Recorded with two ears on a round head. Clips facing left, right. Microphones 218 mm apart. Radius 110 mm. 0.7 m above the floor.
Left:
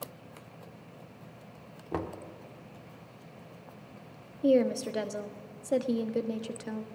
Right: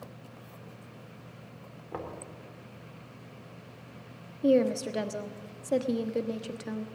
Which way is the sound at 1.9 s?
55° left (ahead or behind).